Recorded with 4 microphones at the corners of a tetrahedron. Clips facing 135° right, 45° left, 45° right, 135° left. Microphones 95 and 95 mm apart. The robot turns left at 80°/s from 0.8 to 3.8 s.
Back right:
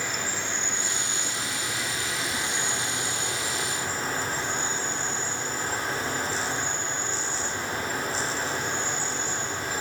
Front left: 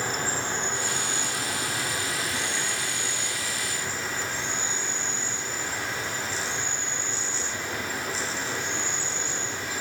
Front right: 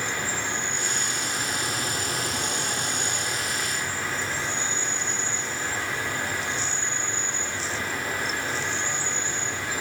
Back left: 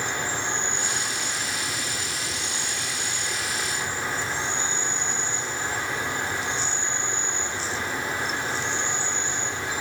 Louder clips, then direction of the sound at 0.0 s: Front left 3 dB, back left 1 dB; 75° left.